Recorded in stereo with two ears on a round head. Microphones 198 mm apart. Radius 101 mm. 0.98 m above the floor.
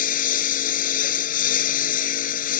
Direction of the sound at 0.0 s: 35° left (ahead or behind).